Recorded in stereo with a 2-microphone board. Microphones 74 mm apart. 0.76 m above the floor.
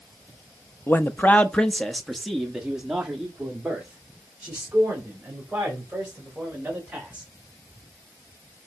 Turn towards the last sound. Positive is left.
turn(degrees=-20)  # may be behind; listen again after turning